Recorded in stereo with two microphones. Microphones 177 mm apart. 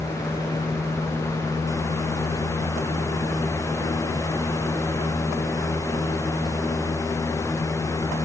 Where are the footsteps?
I don't hear footsteps.